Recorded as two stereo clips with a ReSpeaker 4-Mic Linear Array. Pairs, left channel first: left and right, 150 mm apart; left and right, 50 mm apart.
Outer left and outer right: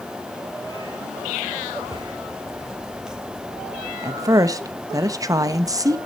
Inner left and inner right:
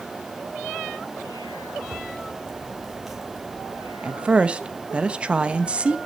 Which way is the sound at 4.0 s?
25° right (ahead or behind).